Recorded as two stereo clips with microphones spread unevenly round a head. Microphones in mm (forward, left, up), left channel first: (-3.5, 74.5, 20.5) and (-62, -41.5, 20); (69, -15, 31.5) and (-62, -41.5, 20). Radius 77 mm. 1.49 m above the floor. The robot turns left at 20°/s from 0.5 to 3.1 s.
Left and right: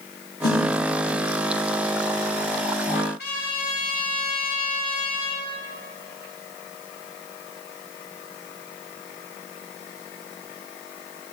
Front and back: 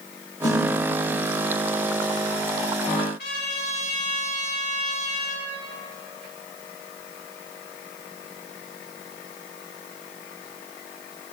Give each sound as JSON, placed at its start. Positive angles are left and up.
{"t": 0.4, "sound": "a snare drum", "azimuth_deg": 60, "distance_m": 4.0}
{"t": 3.2, "sound": "a trumpet", "azimuth_deg": 40, "distance_m": 3.0}